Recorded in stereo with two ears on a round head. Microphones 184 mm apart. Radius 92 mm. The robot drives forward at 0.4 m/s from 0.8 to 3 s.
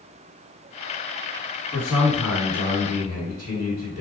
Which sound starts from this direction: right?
A man speaking, at 1.7 s.